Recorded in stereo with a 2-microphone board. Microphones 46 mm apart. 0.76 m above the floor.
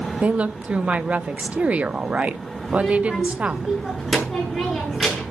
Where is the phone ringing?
I don't hear a phone ringing.